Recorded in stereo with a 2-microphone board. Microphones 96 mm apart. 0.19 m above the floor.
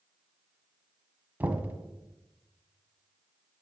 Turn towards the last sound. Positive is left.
turn(degrees=-20)  # may be behind; listen again after turning